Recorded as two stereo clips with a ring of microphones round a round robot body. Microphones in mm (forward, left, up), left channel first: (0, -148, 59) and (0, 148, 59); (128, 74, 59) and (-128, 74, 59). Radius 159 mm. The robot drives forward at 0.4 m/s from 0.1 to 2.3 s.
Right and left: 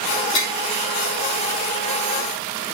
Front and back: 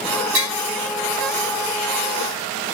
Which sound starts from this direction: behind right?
Tapping, at 0.3 s.